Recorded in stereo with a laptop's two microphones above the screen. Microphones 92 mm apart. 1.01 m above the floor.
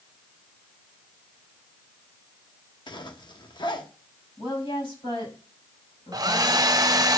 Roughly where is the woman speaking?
Left.